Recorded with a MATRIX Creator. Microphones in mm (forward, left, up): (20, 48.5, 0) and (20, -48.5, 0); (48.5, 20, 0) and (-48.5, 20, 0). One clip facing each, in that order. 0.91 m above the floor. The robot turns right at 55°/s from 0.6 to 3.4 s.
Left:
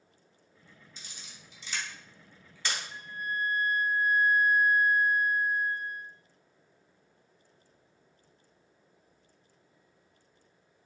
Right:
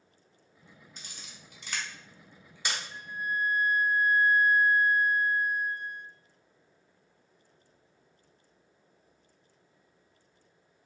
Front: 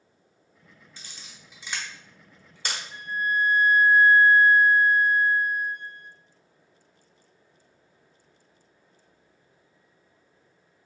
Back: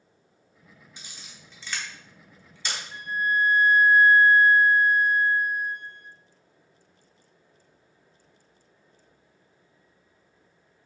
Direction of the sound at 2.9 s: 165° left.